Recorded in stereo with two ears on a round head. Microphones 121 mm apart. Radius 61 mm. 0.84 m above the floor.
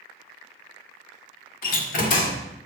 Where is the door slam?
60° left (ahead or behind), 1.7 m.